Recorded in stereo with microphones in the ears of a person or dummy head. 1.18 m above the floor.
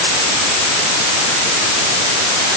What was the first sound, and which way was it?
Only background noise.